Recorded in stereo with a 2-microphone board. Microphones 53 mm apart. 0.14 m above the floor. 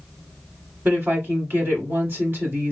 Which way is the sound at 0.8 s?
40° right (ahead or behind).